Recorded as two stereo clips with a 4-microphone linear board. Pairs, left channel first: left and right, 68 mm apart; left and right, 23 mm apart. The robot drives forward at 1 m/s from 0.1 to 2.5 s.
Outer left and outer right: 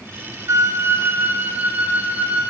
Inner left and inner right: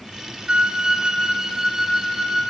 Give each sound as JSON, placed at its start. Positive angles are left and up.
{"t": 0.5, "sound": "a flute", "side_deg": -50, "distance_m": 1.1}